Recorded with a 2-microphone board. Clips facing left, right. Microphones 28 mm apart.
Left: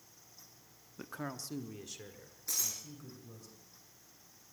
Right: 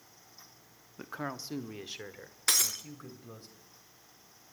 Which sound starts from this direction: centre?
A man speaking, at 1.0 s.